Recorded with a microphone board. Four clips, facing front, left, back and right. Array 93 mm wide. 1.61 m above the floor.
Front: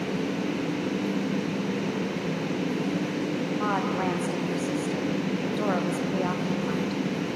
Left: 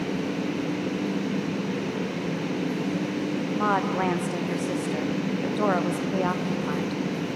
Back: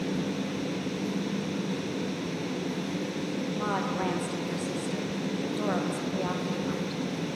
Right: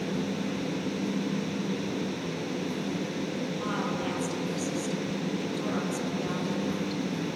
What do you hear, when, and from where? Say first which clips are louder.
3.6 s a woman speaking: left 10 dB, front 3 dB; 85° left, 1.5 m